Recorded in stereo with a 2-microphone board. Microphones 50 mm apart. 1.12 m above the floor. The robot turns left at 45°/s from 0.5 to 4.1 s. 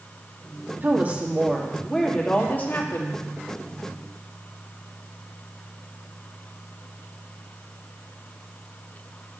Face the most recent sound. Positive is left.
turn(degrees=75)